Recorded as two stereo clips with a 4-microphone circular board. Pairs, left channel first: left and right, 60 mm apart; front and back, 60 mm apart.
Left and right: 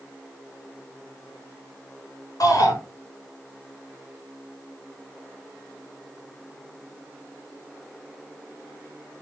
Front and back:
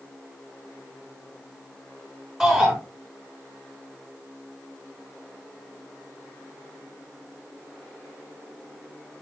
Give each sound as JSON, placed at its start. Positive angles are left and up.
{"t": 2.4, "sound": "a shout", "azimuth_deg": 90, "distance_m": 4.5}